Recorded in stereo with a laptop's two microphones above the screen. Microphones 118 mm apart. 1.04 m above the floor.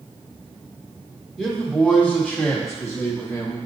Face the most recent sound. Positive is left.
turn(degrees=20)  # may be behind; listen again after turning